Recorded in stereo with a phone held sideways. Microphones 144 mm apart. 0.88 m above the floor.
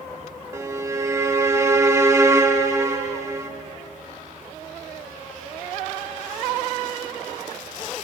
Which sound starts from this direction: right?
A violin, at 0.5 s.